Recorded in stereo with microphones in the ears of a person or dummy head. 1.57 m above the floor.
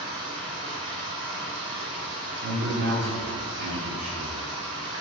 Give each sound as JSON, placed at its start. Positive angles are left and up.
{"t": 0.0, "sound": "running water", "side_deg": -70, "distance_m": 1.8}
{"t": 2.4, "sound": "a man speaking", "side_deg": -40, "distance_m": 1.1}